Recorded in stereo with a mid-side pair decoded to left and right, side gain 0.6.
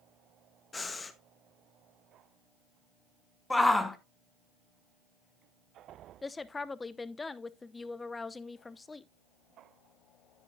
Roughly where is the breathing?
Ahead.